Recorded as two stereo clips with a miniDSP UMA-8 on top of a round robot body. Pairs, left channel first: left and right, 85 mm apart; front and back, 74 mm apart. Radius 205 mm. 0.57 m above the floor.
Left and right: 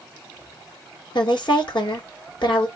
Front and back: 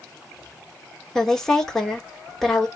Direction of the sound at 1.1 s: 80° left.